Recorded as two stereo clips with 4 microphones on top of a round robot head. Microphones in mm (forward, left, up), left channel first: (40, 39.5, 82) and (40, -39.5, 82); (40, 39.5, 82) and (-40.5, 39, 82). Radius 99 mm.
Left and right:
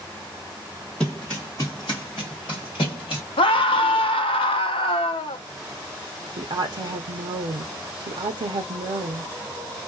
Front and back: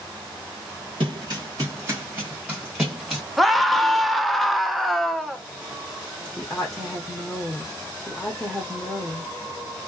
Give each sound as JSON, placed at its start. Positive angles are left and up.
{"t": 1.0, "sound": "running footsteps", "azimuth_deg": 180, "distance_m": 1.6}
{"t": 3.4, "sound": "a scream", "azimuth_deg": 90, "distance_m": 0.7}
{"t": 6.4, "sound": "a woman speaking", "azimuth_deg": -80, "distance_m": 0.7}